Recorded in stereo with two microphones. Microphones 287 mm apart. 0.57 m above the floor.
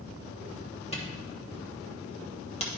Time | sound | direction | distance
0.9 | a camera shutter | 20° left (ahead or behind) | 1.4 m